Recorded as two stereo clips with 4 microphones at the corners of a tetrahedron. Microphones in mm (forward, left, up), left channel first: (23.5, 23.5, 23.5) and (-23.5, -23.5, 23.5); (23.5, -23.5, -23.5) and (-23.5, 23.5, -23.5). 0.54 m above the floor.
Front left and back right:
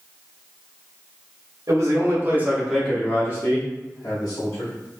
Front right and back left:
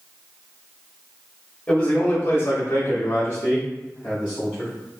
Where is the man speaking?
115° right, 1.2 m; by 4.7 s 25° left, 1.9 m.